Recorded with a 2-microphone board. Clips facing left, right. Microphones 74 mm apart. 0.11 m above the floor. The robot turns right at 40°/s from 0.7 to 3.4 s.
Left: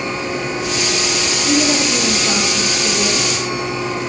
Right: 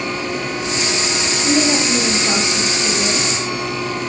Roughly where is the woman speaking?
Ahead right.